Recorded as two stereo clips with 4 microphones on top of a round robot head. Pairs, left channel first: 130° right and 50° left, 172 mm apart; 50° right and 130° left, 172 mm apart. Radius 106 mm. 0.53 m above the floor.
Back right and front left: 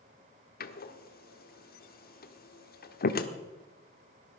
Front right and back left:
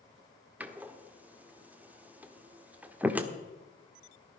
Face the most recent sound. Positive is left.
turn(degrees=-150)